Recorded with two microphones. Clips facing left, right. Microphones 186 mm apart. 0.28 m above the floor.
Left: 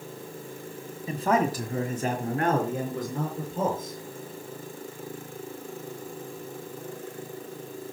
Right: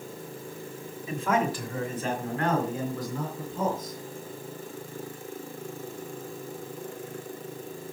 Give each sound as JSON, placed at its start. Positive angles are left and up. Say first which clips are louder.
{"t": 1.1, "sound": "a man speaking", "louder": "left 2 dB", "side_deg": 30, "distance_m": 2.0}